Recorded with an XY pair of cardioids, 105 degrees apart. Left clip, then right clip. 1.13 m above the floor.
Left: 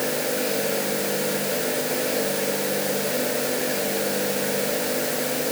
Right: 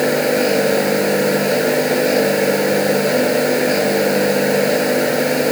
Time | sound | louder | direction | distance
0.0 | a machine running | right 10 dB | 60° right | ?